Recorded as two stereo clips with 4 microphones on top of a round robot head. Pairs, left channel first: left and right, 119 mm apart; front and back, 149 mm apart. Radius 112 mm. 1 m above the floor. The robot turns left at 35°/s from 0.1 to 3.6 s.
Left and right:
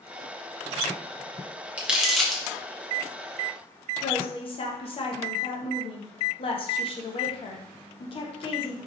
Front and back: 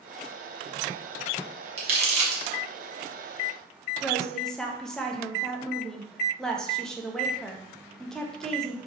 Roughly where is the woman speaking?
Left.